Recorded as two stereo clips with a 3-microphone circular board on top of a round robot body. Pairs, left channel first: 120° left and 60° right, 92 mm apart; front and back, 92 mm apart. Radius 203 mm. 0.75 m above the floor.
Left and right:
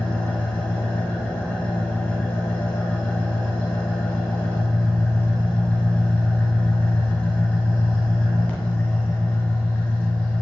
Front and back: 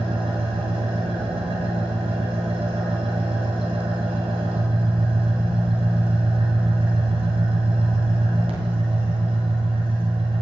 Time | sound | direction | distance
0.0 | an engine running | 160° right | 3 m